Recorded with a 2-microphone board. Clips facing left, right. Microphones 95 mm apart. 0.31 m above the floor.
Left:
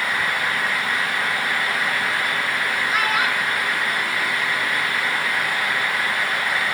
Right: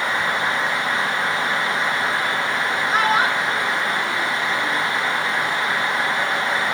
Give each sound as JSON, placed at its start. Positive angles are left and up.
{"t": 2.9, "sound": "a child speaking", "side_deg": -30, "distance_m": 3.0}